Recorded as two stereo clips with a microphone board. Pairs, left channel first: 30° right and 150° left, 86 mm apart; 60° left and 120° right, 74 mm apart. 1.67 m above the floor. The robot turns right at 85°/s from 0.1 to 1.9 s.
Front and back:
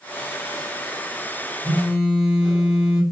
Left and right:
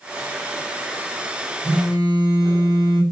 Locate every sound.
1.6 s a phone buzzing: 140° right, 1.4 m; by 3.0 s 120° right, 1.4 m